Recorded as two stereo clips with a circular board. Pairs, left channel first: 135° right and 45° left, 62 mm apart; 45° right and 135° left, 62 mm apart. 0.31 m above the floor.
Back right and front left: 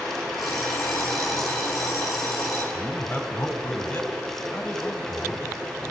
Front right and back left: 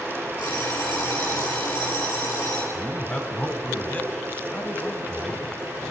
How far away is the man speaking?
About 1.5 m.